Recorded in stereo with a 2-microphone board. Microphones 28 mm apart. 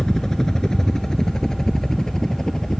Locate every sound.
0.0 s a helicopter: 25° left (ahead or behind)